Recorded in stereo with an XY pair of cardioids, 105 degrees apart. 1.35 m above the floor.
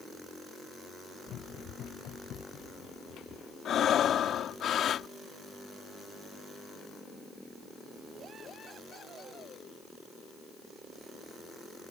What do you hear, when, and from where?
1.3 s running footsteps: 70° left; by 3.5 s 65° left
3.6 s breathing: 60° left